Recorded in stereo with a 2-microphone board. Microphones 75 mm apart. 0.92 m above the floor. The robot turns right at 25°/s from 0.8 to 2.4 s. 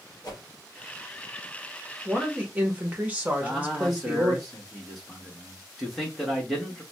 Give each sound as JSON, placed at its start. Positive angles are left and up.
{"t": 0.2, "sound": "a whoosh", "side_deg": 55, "distance_m": 1.4}
{"t": 2.0, "sound": "a woman speaking", "side_deg": -15, "distance_m": 1.0}
{"t": 3.4, "sound": "a man speaking", "side_deg": 0, "distance_m": 1.6}